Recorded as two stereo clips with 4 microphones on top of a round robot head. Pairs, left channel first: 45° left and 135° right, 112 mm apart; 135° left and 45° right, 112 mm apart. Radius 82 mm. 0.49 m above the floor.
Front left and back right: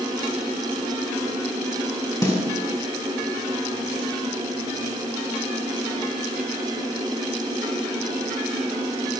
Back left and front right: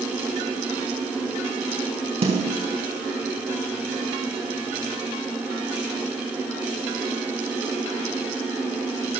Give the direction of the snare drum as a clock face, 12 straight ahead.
1 o'clock.